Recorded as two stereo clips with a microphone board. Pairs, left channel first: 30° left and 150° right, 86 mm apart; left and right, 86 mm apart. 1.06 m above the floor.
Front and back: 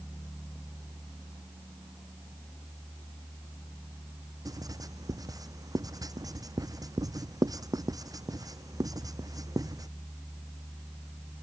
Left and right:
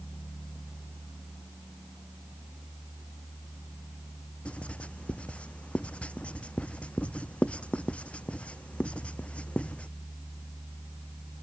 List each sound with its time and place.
4.5 s writing: 165° left